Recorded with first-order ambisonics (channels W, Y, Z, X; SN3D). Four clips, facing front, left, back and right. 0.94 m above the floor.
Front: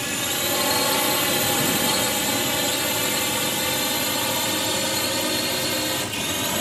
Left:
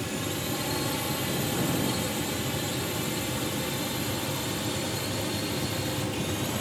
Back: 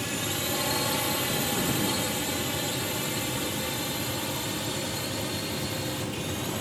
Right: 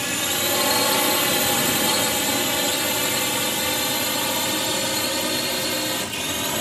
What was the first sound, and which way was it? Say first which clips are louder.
A drone: right 8 dB, front 5 dB; 60° right.